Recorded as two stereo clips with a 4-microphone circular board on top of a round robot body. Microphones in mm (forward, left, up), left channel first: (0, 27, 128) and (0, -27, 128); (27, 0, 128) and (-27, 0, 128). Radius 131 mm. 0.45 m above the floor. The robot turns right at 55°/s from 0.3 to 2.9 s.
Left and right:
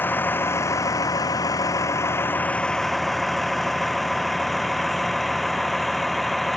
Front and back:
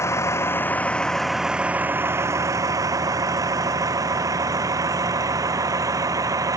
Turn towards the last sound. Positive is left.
turn(degrees=180)